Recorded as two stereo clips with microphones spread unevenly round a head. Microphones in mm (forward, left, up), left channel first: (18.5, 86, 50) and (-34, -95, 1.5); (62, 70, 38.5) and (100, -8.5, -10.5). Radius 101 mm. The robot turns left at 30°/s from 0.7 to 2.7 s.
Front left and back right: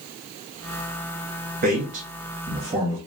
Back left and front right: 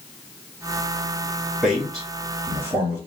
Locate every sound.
1.6 s a man speaking: 135° right, 2.0 m; by 3.0 s 170° right, 2.0 m